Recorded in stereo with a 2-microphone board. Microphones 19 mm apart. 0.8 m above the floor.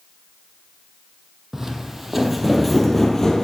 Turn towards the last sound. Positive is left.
turn(degrees=25)  # may be behind; listen again after turning